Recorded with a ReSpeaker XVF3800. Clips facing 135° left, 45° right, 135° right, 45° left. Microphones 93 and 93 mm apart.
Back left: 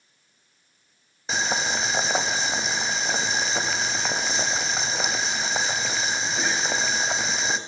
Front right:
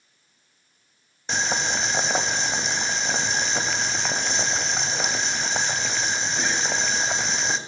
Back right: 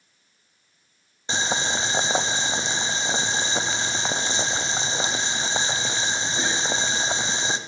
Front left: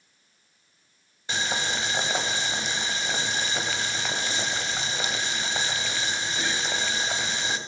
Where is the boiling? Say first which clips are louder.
Even, back right 3 dB; 140° right, 0.6 m.